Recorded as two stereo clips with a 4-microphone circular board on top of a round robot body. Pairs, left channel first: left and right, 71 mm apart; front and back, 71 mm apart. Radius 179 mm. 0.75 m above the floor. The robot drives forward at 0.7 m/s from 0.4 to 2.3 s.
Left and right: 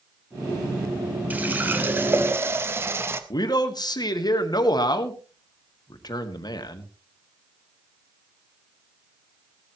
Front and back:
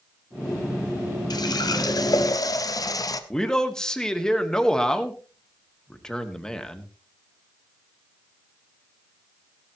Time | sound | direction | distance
1.3 | a running tap | 20° right | 2 m
3.3 | a man speaking | 80° left | 2 m